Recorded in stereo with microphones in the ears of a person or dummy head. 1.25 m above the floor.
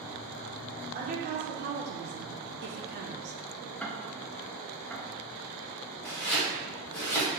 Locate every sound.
0.9 s a woman speaking: 45° right (ahead or behind), 1.3 m; by 3.4 s 35° right (ahead or behind), 0.7 m
3.8 s ticking: centre (ahead or behind), 0.6 m
6.0 s chopping: 10° left (ahead or behind), 1.1 m